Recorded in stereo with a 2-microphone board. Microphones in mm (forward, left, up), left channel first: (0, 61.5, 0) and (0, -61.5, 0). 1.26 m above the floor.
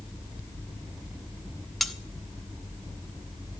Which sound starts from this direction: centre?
Cutlery clinking, at 1.8 s.